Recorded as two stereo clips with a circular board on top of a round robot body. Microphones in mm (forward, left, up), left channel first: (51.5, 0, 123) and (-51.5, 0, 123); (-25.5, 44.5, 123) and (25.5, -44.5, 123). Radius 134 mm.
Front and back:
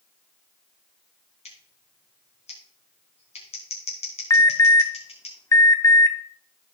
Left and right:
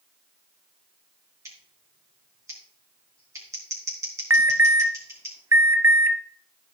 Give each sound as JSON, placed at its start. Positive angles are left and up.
{"t": 1.4, "sound": "scissors", "azimuth_deg": 0, "distance_m": 3.5}
{"t": 4.3, "sound": "an alarm", "azimuth_deg": -20, "distance_m": 1.0}